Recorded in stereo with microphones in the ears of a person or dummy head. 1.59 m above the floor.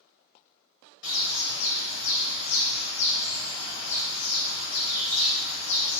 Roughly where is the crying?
I don't hear crying.